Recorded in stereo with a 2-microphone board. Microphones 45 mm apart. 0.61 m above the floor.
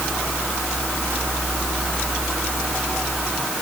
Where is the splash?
I don't hear a splash.